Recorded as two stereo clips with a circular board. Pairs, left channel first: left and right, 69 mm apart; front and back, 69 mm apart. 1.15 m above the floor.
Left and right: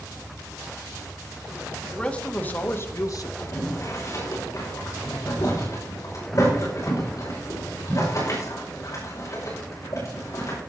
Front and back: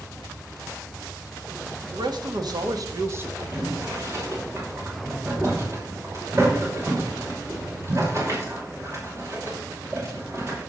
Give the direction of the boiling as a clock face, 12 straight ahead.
8 o'clock.